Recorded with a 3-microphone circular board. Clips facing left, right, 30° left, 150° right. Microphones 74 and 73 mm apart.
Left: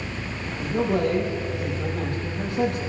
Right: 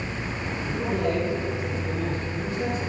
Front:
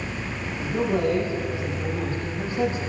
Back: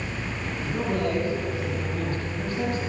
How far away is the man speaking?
About 7 m.